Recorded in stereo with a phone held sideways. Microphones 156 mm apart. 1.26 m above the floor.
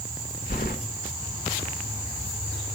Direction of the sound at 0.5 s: 75° left (ahead or behind).